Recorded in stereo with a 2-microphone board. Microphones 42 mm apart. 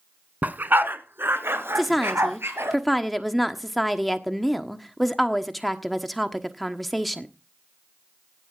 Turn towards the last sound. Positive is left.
turn(degrees=0)  # may be behind; listen again after turning